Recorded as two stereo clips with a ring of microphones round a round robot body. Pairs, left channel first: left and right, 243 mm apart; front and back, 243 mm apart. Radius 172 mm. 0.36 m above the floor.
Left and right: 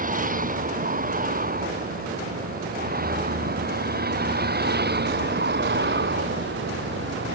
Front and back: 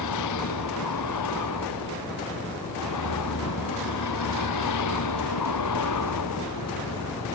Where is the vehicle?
35° right; by 7.3 s 50° right.